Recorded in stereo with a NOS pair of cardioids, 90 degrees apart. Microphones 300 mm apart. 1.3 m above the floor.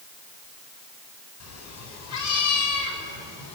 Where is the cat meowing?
65° left, 5.5 m; by 3.6 s 70° left, 7 m.